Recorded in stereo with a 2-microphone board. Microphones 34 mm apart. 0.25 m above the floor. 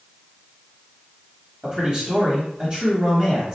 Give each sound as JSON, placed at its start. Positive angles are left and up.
{"t": 1.6, "sound": "a man speaking", "side_deg": -30, "distance_m": 1.3}